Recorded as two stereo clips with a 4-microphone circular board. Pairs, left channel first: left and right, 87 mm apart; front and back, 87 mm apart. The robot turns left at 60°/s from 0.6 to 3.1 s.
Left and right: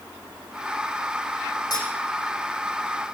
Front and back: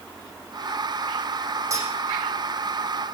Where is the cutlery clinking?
125° left, 8 m; by 1.9 s 115° left, 8 m.